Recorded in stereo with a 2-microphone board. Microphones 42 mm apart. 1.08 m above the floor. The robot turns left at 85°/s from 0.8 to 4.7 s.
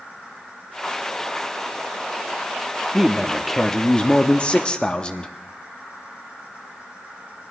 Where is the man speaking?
150° right, 0.6 m; by 5.3 s 60° left, 0.6 m.